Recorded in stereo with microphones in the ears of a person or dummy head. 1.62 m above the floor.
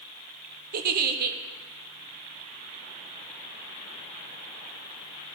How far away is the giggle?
About 0.9 m.